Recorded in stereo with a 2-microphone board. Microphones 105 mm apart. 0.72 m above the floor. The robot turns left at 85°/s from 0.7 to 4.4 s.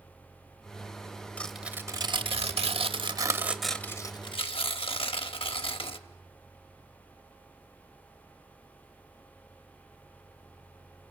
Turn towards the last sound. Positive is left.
turn(degrees=60)  # may be behind; listen again after turning